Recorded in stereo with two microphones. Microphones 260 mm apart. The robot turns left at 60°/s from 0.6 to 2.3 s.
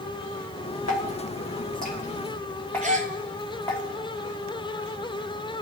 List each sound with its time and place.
0.9 s dripping: 85° left, 2.5 m; by 3.8 s 5° left (ahead or behind), 2.5 m
2.8 s a gasp: 30° right (ahead or behind), 0.9 m